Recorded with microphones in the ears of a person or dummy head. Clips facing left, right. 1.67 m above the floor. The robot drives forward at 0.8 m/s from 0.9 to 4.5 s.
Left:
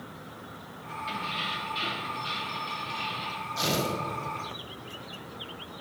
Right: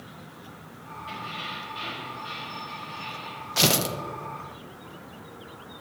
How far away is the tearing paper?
About 1.0 m.